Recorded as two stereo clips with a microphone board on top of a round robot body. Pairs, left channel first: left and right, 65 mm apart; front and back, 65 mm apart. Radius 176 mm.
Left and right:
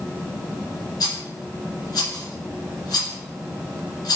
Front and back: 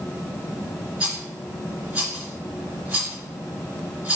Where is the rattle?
105° left, 3 m.